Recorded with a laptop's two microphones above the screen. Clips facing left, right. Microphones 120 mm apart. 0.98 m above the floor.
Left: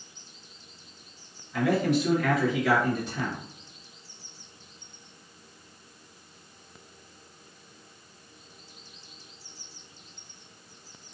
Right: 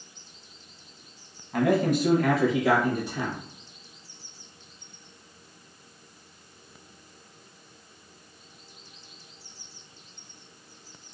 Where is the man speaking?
50° right (ahead or behind), 0.9 m; by 3.4 s 10° right (ahead or behind), 1.3 m.